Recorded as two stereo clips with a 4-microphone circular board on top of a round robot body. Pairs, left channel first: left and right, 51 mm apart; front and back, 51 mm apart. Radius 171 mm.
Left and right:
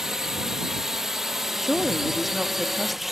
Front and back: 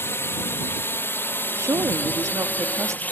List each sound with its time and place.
0.0 s a drone: 10° right; by 3.1 s 5° right
1.6 s a woman speaking: straight behind